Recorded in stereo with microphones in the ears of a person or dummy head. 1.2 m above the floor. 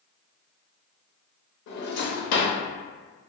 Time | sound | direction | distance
1.7 | a drawer | 55° left (ahead or behind) | 0.8 m